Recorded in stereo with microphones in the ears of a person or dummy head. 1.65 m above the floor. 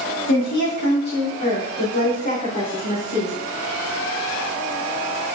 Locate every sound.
0.3 s a woman speaking: 60° left (ahead or behind), 5 m; by 3.3 s 50° left (ahead or behind), 6 m